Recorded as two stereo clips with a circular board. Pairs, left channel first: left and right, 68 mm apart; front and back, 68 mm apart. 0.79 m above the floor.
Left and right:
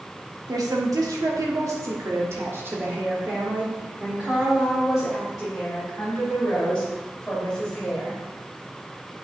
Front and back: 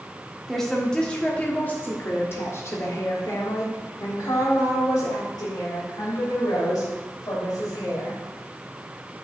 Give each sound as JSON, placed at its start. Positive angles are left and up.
{"t": 0.5, "sound": "a woman speaking", "azimuth_deg": -85, "distance_m": 1.6}